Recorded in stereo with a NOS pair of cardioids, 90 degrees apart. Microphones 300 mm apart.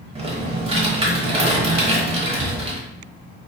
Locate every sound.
0.1 s typing on a keyboard: 20° right, 0.9 m